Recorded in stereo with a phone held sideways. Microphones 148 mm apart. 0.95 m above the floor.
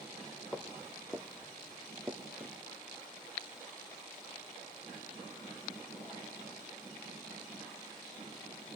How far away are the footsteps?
About 1.5 m.